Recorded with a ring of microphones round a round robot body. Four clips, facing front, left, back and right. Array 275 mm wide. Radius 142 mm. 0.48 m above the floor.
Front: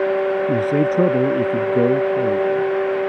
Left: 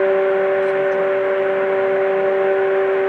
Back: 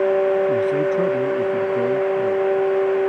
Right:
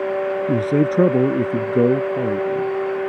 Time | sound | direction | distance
0.5 | a man speaking | 60° right | ?